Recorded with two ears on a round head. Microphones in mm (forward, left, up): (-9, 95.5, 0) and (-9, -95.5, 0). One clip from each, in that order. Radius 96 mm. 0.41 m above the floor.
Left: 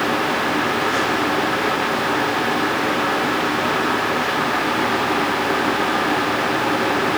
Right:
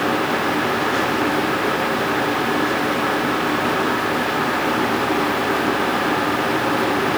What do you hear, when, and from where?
Only background noise.